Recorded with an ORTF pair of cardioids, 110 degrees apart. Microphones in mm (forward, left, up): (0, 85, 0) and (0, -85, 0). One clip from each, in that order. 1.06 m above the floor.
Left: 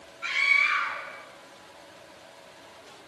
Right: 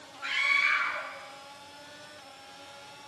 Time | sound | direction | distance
0.2 | a scream | 15° left | 7.5 m